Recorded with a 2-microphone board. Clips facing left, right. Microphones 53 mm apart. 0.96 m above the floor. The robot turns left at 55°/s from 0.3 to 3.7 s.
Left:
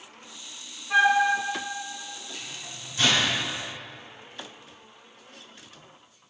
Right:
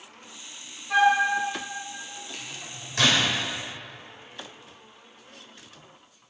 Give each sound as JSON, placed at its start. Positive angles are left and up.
{"t": 0.9, "sound": "a flute", "side_deg": -5, "distance_m": 1.3}
{"t": 2.3, "sound": "a microwave", "side_deg": -55, "distance_m": 2.5}